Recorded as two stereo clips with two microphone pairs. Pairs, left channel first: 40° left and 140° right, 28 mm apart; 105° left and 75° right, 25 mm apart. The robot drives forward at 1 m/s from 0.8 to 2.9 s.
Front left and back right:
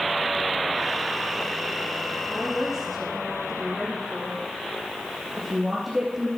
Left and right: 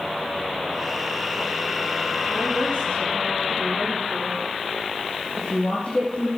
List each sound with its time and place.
2.3 s a woman speaking: 130° left, 4.5 m; by 6.3 s 135° left, 5 m